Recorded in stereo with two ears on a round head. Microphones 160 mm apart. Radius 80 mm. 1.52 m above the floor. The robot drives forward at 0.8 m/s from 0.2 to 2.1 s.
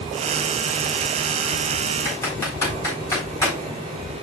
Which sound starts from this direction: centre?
Typing on a keyboard, at 2.0 s.